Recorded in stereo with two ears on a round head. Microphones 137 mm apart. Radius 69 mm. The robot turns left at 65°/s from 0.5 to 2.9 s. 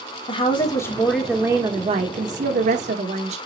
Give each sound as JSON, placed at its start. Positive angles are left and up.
{"t": 0.3, "sound": "a woman speaking", "azimuth_deg": 45, "distance_m": 1.9}